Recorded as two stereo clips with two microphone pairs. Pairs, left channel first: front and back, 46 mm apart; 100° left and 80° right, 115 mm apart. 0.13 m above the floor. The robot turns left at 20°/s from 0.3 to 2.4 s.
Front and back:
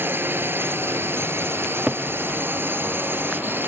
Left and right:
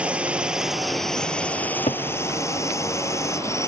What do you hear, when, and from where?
0.0 s a drone: 155° right; by 3.7 s 160° left
1.6 s a cupboard door: 115° left; by 2.1 s 110° left